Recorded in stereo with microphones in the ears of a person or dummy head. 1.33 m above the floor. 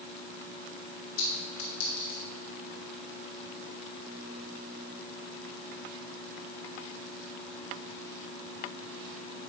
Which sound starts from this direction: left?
A clink, at 1.2 s.